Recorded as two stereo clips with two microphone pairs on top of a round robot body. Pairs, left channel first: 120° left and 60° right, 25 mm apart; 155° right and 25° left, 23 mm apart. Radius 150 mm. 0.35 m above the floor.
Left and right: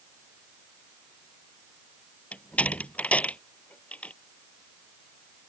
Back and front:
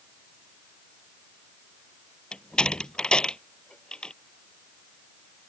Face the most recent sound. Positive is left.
turn(degrees=150)